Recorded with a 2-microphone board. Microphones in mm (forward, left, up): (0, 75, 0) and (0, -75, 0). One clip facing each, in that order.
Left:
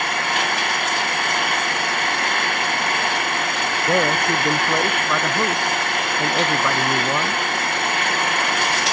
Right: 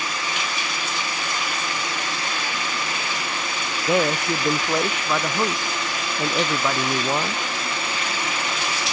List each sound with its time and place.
0.0 s an engine running: 60° left (ahead or behind)
3.9 s a man speaking: 5° right (ahead or behind)